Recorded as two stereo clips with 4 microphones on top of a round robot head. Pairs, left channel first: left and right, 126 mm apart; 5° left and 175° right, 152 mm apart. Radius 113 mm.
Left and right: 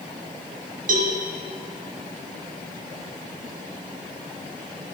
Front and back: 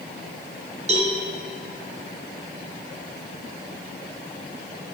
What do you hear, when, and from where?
0.9 s a cowbell: 120° right, 1.2 m